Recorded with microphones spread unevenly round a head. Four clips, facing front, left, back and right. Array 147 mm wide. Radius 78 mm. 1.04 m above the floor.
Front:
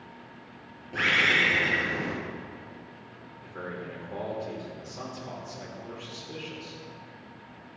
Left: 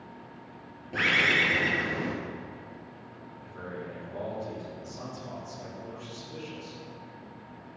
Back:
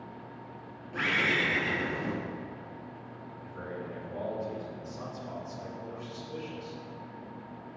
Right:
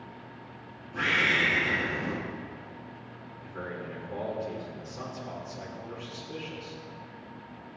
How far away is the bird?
About 3.5 m.